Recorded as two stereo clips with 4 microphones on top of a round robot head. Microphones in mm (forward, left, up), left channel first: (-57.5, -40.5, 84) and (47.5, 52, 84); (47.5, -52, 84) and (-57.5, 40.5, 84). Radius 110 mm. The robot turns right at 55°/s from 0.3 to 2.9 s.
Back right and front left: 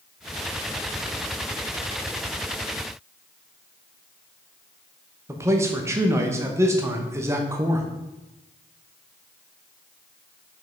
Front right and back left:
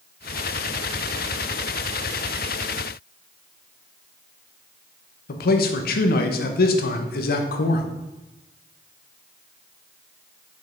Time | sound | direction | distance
5.3 | a man speaking | 30° right | 0.8 m